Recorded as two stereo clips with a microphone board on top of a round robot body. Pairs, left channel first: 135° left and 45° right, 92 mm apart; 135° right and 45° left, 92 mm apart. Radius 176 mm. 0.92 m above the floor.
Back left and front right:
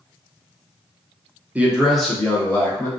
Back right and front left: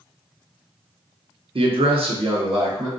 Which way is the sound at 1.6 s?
30° left.